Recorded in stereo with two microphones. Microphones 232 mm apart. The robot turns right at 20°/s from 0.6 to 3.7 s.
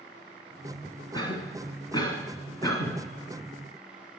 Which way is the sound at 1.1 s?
20° left (ahead or behind).